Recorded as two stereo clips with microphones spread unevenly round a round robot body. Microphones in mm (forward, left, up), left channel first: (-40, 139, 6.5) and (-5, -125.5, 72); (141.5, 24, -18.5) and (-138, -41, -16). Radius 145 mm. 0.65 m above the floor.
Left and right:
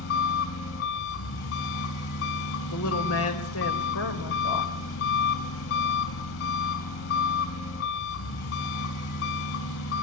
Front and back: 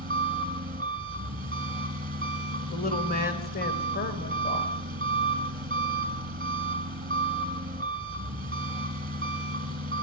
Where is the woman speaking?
70° left, 3 m.